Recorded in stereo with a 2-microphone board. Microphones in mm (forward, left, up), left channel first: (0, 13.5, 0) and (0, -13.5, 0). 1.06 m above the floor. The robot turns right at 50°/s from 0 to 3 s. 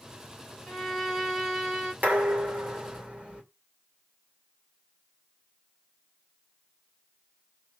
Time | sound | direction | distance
0.7 | a violin | 175° left | 4 m
2.0 | dishes clattering | 95° right | 2.5 m